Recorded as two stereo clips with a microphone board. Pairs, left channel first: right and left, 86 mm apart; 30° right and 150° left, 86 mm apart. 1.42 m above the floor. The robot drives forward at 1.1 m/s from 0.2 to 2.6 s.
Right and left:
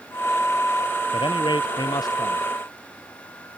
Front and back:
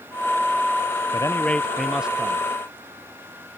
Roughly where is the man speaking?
Right.